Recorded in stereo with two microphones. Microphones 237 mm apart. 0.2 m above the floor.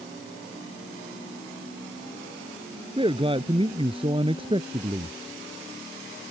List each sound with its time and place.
3.0 s a man speaking: 20° right (ahead or behind)